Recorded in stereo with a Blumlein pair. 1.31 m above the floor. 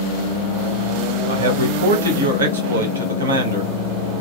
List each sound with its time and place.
1.3 s a man speaking: 65° right, 1.3 m